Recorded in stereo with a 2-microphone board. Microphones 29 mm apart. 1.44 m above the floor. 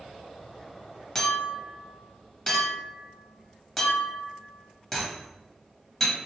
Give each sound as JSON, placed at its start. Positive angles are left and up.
{"t": 1.1, "sound": "a clink", "side_deg": 10, "distance_m": 1.0}